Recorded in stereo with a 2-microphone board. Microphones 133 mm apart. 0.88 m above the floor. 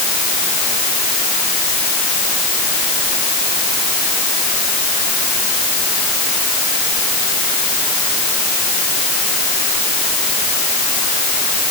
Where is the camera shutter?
I don't hear a camera shutter.